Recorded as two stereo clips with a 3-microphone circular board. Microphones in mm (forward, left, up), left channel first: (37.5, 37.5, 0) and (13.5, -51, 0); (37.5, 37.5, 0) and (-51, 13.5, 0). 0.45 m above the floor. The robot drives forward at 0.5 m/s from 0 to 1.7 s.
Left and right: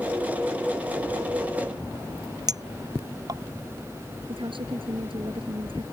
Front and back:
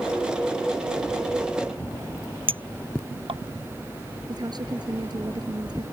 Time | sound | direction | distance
2.5 | a clink | 150° right | ?
4.3 | a woman speaking | 125° right | ?